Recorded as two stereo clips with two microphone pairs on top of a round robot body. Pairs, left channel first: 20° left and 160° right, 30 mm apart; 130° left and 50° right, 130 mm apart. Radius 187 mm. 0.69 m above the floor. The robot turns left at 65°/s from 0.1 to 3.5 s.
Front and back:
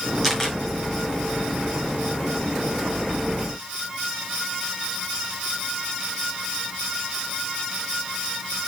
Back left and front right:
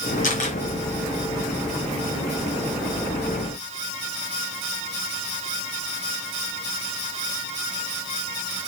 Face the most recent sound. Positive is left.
turn(degrees=-100)